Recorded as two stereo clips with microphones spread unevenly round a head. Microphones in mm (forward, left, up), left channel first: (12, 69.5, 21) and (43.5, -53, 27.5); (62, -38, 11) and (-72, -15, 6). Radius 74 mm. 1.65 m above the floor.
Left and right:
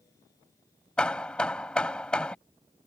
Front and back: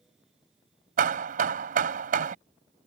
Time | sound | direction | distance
1.0 | hammering | 170° right | ?